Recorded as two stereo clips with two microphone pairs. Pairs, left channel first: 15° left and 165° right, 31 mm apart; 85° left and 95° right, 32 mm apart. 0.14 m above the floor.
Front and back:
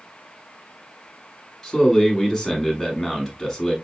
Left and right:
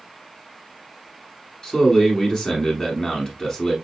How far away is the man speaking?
About 1.1 m.